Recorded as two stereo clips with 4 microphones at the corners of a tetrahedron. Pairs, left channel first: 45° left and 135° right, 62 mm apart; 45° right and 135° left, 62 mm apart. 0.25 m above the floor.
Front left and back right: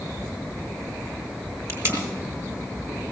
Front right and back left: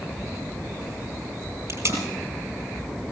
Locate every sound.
1.7 s tape being pulled: 170° left, 4.5 m